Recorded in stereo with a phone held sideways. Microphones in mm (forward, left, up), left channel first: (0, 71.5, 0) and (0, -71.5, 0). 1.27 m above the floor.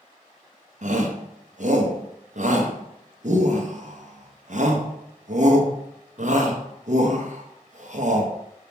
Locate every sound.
0.8 s a shout: 60° right (ahead or behind), 1.3 m